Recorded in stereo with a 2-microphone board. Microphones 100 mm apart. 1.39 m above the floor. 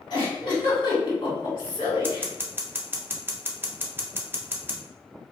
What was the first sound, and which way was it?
A giggle, 50° left (ahead or behind).